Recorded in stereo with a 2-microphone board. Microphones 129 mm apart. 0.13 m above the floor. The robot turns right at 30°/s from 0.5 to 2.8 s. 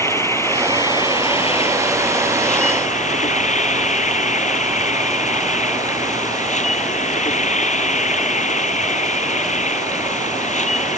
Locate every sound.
0.0 s an insect: 20° left; by 11.0 s 90° left